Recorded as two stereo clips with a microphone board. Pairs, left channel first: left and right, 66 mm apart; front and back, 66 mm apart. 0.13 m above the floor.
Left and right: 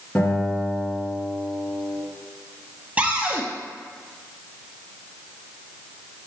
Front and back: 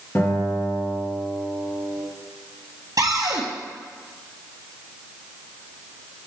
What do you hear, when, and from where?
0.1 s a guitar: 40° left, 2.5 m
3.0 s a cupboard door: 155° right, 0.9 m